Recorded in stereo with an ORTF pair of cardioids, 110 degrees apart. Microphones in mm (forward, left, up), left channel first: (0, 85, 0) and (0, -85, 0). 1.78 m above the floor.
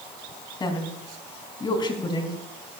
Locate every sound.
0.6 s a woman speaking: 30° left, 3.5 m